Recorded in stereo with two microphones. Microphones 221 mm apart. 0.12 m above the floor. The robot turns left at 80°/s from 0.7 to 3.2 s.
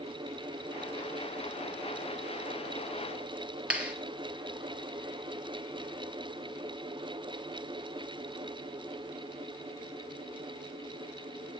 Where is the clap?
5° right (ahead or behind), 1.9 m.